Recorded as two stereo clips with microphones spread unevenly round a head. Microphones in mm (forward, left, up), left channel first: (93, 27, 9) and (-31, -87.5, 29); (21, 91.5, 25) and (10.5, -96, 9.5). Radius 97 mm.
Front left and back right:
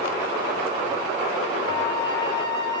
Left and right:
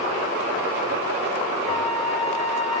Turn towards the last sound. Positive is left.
turn(degrees=30)